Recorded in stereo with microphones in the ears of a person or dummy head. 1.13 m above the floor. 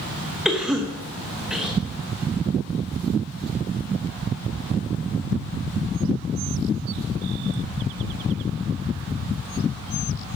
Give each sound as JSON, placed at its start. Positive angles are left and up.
{"t": 0.5, "sound": "a cough", "side_deg": -5, "distance_m": 0.9}